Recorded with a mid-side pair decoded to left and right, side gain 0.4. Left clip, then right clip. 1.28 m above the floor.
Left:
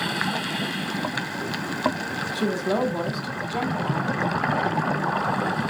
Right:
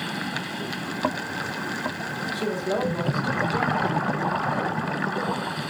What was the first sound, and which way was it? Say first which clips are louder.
A woman speaking: left 2 dB; 30° left.